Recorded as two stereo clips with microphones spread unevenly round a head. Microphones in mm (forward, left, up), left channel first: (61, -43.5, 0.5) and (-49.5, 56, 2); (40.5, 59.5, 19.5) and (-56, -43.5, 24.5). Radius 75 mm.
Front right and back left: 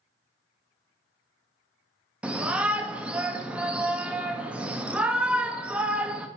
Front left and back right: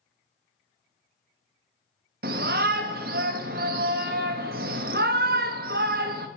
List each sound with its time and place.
2.2 s a shout: 140° right, 0.7 m